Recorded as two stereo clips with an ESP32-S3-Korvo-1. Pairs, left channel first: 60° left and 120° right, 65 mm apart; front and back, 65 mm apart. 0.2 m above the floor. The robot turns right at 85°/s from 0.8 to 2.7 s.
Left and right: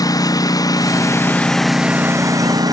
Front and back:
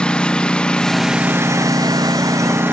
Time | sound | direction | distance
0.0 | a lawn mower | 75° left | ?